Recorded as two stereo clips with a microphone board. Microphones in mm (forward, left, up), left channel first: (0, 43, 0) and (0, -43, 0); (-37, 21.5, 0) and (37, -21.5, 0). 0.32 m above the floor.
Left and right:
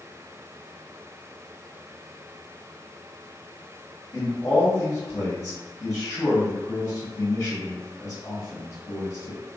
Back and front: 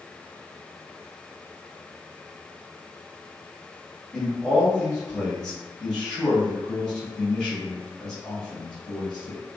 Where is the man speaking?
70° left, 1.4 m.